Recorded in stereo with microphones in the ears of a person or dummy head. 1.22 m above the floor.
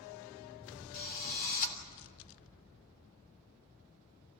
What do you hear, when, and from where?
0.9 s a drill: 50° left (ahead or behind), 3 m